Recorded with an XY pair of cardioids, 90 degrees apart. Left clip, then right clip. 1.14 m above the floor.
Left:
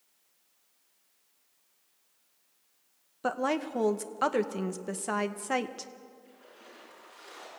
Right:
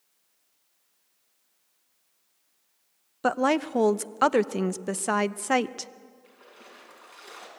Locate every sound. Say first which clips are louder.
3.2 s a woman speaking: right 6 dB; 50° right, 0.7 m
6.2 s a splash: right 2 dB; 70° right, 7 m